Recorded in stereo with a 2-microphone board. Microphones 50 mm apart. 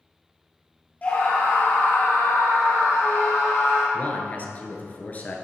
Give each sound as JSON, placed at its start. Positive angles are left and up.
{"t": 1.0, "sound": "a scream", "side_deg": 30, "distance_m": 2.5}
{"t": 3.9, "sound": "a man speaking", "side_deg": 30, "distance_m": 1.5}